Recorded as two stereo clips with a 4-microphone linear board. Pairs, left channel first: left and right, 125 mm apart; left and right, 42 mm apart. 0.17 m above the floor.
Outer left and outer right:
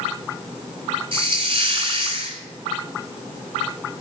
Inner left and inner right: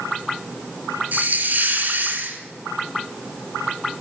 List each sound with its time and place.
1.1 s a hiss: 45° right (ahead or behind), 2 m